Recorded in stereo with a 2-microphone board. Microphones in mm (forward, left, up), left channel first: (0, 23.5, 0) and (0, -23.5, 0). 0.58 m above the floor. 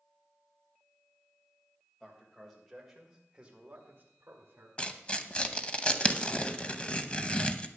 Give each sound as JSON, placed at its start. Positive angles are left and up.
{"t": 2.0, "sound": "a man speaking", "side_deg": 10, "distance_m": 3.5}
{"t": 4.8, "sound": "tearing paper", "side_deg": 25, "distance_m": 0.7}